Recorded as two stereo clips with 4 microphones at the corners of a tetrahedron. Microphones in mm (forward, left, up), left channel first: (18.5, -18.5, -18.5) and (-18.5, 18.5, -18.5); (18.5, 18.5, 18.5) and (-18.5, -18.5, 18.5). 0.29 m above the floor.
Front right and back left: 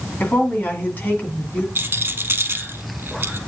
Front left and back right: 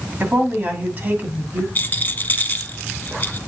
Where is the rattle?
95° left, 0.9 m.